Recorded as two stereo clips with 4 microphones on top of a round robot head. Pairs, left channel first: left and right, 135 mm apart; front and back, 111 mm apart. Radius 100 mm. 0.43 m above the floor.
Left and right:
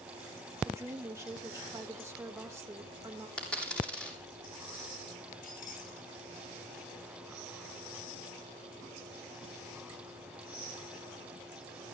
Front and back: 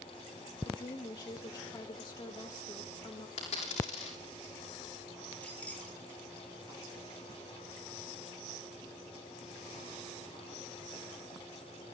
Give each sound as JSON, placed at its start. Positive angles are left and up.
{"t": 0.7, "sound": "a woman speaking", "azimuth_deg": -30, "distance_m": 1.8}
{"t": 3.4, "sound": "a dropped coin", "azimuth_deg": 5, "distance_m": 7.0}
{"t": 5.4, "sound": "keys jangling", "azimuth_deg": 80, "distance_m": 7.5}